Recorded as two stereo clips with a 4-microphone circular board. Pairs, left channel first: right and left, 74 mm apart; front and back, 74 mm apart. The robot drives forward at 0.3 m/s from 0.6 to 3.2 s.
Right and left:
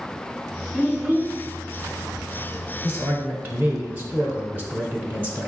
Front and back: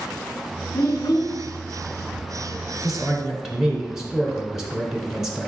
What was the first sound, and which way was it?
A child speaking, 20° left.